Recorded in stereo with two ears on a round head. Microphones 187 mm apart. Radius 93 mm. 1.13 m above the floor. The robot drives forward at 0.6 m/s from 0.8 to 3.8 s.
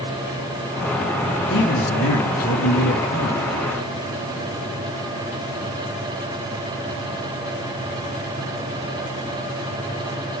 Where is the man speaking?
60° left (ahead or behind), 3 m; by 3.5 s 75° left (ahead or behind), 2.5 m.